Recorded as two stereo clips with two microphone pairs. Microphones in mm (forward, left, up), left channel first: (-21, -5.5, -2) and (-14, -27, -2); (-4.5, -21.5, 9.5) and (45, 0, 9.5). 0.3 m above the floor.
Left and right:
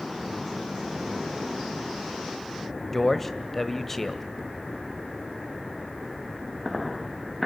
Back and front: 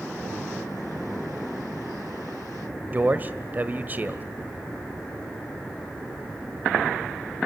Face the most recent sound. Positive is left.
turn(degrees=35)